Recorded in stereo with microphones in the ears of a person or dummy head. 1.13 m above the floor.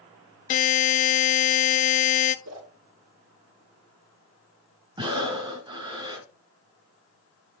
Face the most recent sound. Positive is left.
turn(degrees=-25)  # may be behind; listen again after turning